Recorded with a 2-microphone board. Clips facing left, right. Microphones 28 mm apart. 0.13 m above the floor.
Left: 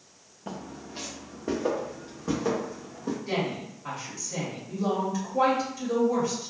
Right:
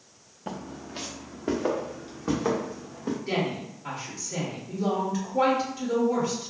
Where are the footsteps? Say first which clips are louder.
Right 2 dB; 15° right (ahead or behind), 0.7 m; by 3.2 s 30° right (ahead or behind), 2 m.